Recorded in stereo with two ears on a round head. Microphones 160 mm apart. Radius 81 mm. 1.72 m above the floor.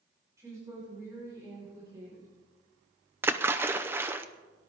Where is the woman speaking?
20° right (ahead or behind), 6 m.